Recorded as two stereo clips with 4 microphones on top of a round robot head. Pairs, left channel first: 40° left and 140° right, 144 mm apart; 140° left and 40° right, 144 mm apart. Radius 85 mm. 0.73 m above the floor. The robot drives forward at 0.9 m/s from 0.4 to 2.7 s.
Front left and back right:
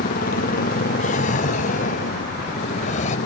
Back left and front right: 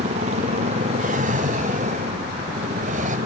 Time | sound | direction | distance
0.0 | a motorcycle | 10° left | ?
1.0 | a drawer | straight ahead | ?